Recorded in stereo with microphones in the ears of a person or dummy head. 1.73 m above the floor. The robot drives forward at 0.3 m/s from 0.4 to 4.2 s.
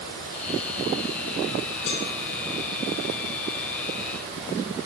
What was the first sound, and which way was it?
A cowbell, 70° left (ahead or behind).